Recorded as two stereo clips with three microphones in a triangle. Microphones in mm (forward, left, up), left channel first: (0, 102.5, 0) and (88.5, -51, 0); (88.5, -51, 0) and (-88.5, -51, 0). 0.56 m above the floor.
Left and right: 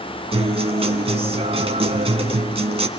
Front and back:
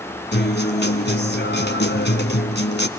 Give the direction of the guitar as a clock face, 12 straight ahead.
12 o'clock.